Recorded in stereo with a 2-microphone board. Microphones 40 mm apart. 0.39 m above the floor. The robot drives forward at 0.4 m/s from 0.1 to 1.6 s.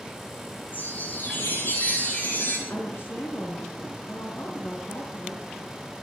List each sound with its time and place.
0.7 s a chime: 50° left (ahead or behind), 10 m; by 2.6 s 45° left (ahead or behind), 10 m
2.7 s a woman speaking: 65° left (ahead or behind), 4.5 m